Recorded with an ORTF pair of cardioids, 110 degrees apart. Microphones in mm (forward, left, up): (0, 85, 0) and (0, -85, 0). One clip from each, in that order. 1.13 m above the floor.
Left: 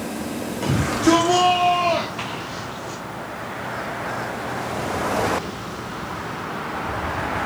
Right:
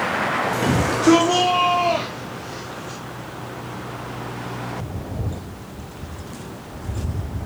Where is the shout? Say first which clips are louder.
Even; 10° right, 1.7 m; by 3.0 s 15° left, 2.5 m.